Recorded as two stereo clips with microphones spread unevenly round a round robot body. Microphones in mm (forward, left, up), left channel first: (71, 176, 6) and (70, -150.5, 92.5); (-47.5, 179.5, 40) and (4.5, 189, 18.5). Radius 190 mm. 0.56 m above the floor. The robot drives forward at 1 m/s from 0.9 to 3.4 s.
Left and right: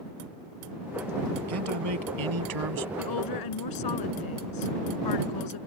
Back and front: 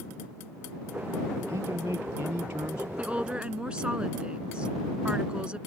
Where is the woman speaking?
80° left.